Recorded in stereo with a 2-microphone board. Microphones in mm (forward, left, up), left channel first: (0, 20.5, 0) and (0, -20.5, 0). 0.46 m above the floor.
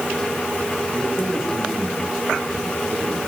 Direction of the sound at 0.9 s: Centre (ahead or behind).